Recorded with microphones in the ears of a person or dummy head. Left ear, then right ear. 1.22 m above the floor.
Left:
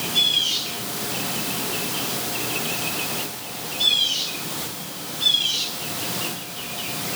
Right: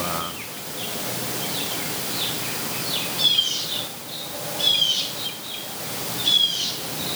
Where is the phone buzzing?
I don't hear a phone buzzing.